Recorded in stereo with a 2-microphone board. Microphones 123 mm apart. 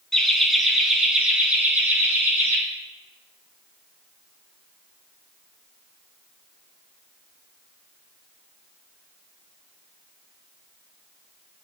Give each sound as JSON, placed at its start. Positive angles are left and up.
{"t": 0.1, "sound": "laughter", "side_deg": 5, "distance_m": 1.5}